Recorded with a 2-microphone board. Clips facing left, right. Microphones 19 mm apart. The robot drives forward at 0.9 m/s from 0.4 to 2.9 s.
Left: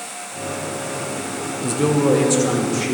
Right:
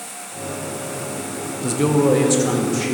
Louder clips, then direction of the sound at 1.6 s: Right 1 dB; 5° right (ahead or behind).